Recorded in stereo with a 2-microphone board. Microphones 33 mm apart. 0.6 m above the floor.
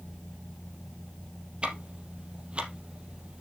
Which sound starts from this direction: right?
Ticking, at 1.6 s.